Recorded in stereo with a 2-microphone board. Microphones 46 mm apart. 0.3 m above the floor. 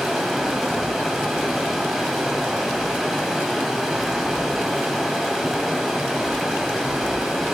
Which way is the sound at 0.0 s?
5° right (ahead or behind).